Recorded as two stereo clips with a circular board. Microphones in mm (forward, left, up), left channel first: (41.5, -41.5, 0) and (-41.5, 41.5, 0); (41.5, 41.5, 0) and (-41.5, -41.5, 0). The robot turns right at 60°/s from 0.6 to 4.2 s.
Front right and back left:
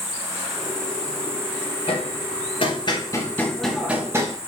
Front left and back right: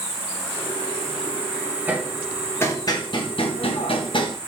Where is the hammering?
65° right, 0.9 m; by 4.4 s 75° left, 0.9 m.